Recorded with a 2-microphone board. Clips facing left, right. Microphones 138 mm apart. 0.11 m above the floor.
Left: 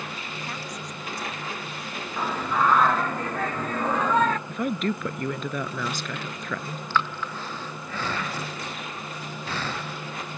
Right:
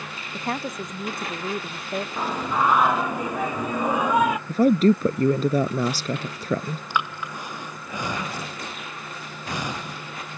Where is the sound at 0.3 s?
50° right (ahead or behind); by 2.1 s 55° right (ahead or behind).